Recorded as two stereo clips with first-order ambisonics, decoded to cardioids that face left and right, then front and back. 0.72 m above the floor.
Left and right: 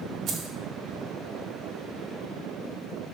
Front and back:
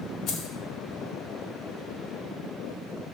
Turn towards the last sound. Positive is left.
turn(degrees=-45)